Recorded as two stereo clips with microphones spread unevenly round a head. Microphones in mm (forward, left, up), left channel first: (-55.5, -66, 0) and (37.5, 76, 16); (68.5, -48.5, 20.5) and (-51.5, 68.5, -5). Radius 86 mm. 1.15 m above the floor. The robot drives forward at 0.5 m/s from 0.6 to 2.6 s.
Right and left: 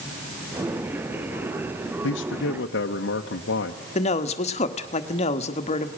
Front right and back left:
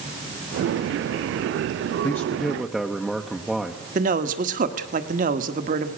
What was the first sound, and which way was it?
A man speaking, 125° right.